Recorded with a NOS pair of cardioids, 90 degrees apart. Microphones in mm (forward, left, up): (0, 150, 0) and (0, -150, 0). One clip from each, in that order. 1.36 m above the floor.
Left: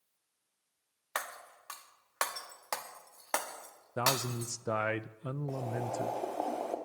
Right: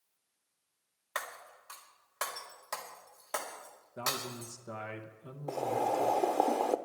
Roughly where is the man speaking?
Ahead left.